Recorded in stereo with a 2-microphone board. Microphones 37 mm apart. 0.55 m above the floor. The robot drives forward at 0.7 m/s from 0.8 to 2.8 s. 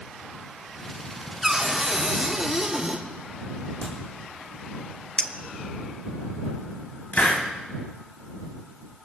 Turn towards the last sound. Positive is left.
turn(degrees=50)  # may be behind; listen again after turning